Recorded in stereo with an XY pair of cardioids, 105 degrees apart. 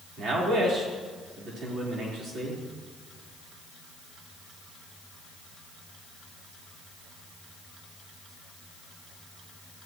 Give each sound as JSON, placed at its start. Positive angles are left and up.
{"t": 0.2, "sound": "a man speaking", "azimuth_deg": -50, "distance_m": 4.0}